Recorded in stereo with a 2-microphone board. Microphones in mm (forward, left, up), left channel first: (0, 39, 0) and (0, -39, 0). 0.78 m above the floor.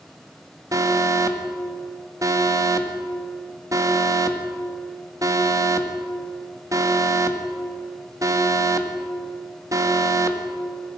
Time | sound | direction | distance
0.7 | an alarm | 45° right (ahead or behind) | 1.9 m